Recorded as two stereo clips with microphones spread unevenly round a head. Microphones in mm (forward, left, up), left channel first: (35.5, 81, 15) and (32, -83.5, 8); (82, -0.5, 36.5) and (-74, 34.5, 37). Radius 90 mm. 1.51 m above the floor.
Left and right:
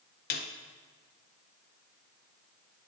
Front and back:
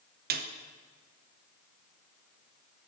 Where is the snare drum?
135° left, 0.6 m.